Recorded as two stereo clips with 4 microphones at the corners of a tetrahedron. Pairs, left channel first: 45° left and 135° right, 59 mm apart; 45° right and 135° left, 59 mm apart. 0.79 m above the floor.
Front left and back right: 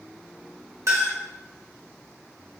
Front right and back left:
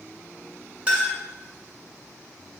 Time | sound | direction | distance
0.9 | a clink | 155° right | 1.8 m